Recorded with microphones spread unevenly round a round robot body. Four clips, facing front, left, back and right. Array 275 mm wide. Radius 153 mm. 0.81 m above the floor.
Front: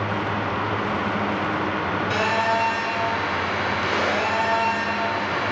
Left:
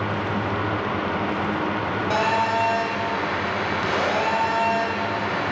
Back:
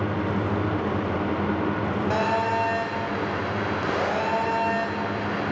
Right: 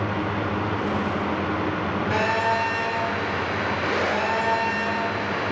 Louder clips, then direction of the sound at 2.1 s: Left 2 dB, front 2 dB; 125° left.